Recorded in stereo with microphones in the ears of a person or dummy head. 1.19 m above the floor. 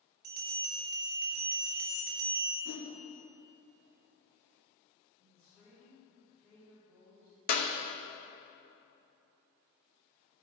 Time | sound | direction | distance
0.2 | a bell | 50° right (ahead or behind) | 1.6 m
2.6 | a whoosh | 60° left (ahead or behind) | 3 m
5.2 | a woman speaking | 10° left (ahead or behind) | 3.5 m
7.5 | a clap | 50° left (ahead or behind) | 1.0 m